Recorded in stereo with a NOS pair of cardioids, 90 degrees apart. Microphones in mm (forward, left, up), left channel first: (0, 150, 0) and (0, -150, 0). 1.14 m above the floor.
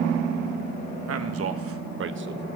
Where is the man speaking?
55° right, 1.3 m; by 2.5 s 35° right, 0.6 m.